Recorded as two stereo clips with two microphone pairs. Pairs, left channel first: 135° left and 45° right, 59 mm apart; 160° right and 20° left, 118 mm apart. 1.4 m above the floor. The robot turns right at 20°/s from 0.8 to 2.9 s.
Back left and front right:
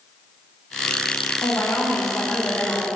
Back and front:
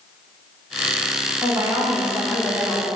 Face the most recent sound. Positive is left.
turn(degrees=110)